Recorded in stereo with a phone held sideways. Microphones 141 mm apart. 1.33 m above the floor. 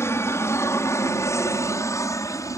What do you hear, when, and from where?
0.0 s an aircraft: 20° left (ahead or behind)